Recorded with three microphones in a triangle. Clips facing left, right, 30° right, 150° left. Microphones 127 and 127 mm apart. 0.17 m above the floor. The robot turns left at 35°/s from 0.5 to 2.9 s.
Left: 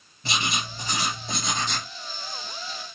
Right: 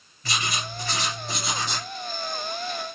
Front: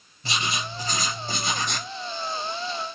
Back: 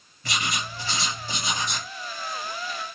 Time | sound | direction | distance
0.2 | writing | 30° left | 3.5 m